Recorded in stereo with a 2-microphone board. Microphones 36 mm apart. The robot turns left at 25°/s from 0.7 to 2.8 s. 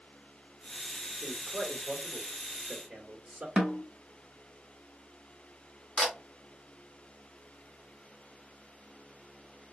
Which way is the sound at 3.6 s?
20° right (ahead or behind).